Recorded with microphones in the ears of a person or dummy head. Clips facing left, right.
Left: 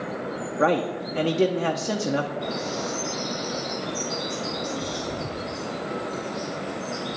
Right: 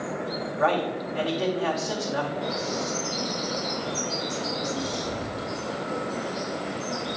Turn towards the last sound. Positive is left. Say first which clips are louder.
# even
turn(degrees=0)  # may be behind; listen again after turning